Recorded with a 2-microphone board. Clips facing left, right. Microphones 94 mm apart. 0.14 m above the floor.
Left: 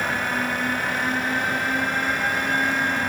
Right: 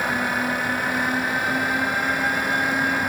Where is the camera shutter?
I don't hear a camera shutter.